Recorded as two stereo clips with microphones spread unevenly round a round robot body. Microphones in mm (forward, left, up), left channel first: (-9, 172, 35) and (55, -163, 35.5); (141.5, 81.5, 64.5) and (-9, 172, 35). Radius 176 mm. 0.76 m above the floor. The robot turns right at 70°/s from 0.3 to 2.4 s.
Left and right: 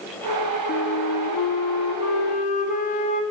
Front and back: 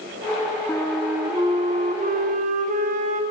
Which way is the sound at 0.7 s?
45° left.